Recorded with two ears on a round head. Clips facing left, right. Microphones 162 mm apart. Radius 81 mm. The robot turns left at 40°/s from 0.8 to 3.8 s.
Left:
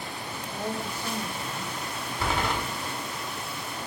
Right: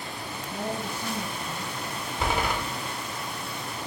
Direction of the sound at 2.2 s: 20° right (ahead or behind).